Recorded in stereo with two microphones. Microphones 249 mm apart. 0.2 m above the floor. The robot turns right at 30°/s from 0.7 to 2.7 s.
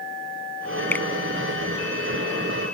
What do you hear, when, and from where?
0.9 s a finger snap: 10° left (ahead or behind); by 1.1 s 5° left (ahead or behind)